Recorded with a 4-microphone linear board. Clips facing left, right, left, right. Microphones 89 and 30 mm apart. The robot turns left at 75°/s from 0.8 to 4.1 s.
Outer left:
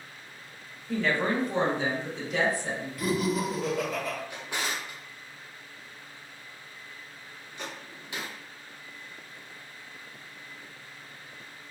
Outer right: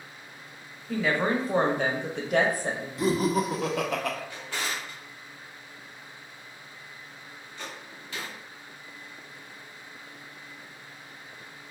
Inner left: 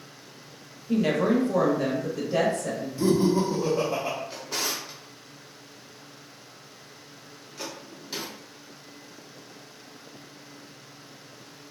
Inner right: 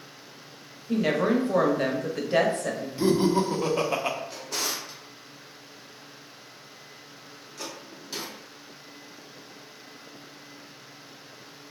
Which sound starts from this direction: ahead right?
Laughter, at 3.0 s.